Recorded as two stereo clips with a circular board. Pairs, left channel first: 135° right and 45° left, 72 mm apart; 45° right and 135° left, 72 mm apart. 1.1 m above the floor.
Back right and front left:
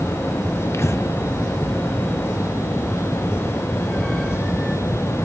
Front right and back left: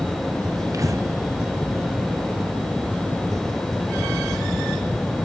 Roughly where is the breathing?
Behind.